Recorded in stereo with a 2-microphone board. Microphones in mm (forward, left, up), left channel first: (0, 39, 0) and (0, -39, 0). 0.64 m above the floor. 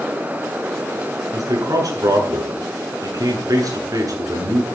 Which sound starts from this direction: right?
A man speaking, at 1.3 s.